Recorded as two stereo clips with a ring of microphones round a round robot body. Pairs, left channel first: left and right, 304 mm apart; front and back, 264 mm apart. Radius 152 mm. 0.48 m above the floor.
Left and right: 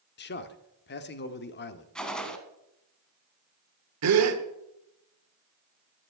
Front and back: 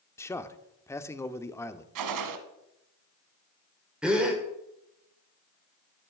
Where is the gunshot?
Straight behind, 1.4 m.